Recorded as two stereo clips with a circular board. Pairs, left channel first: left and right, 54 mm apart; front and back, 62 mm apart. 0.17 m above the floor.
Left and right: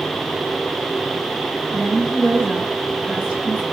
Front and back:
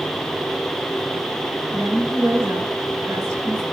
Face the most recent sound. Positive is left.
turn(degrees=-150)